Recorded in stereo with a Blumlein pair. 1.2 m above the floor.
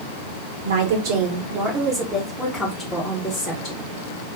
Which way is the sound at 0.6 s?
55° right.